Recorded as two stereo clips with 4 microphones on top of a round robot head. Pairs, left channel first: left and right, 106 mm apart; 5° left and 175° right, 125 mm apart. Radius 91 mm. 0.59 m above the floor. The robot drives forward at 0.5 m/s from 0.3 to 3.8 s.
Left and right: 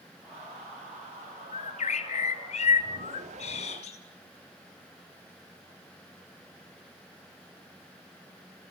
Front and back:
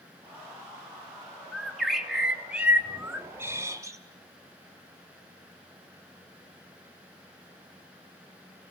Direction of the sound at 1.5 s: 90° left.